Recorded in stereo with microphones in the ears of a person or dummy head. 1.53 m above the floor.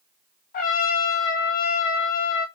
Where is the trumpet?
40° left (ahead or behind), 1.0 m.